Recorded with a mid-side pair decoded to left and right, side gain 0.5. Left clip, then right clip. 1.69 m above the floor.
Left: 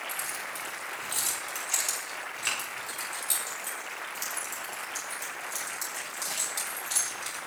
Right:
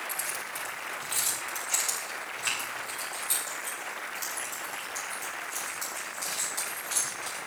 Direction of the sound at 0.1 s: 5° right.